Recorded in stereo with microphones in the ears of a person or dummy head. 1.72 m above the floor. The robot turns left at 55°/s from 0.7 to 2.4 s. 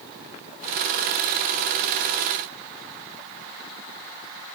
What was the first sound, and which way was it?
Only background noise.